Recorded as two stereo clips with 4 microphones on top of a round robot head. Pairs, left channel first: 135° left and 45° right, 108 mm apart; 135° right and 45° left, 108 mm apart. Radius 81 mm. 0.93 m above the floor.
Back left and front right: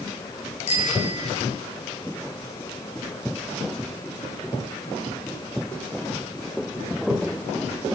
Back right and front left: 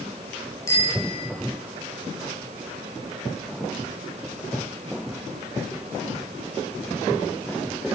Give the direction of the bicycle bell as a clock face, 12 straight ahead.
7 o'clock.